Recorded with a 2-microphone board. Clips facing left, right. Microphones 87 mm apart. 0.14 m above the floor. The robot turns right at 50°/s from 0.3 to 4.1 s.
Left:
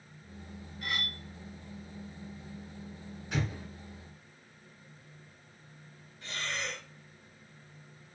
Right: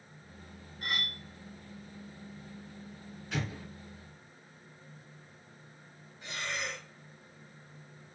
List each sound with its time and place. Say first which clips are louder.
0.8 s cutlery clinking: even; 40° right (ahead or behind), 0.9 m; by 1.2 s 35° right (ahead or behind), 0.9 m
3.3 s an explosion: left 2 dB; 15° left (ahead or behind), 0.8 m; by 3.6 s 20° left (ahead or behind), 0.8 m
6.2 s breathing: even; 15° right (ahead or behind), 0.7 m